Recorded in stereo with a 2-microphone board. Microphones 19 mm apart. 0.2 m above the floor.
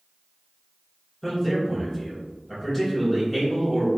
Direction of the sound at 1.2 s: 15° left (ahead or behind).